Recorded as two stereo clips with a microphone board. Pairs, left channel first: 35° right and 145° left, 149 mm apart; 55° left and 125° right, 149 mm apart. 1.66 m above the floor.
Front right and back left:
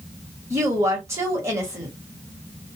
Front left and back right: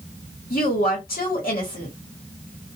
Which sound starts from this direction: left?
A woman speaking, at 0.5 s.